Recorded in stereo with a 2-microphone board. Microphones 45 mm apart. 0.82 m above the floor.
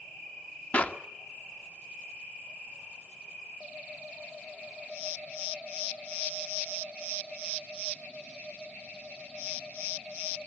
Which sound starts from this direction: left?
A clap, at 0.7 s.